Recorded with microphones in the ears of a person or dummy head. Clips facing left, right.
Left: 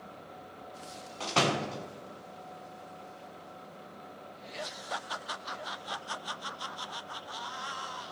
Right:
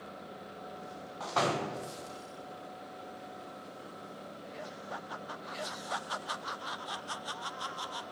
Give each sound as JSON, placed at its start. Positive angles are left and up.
{"t": 1.2, "sound": "a door slam", "side_deg": 40, "distance_m": 0.8}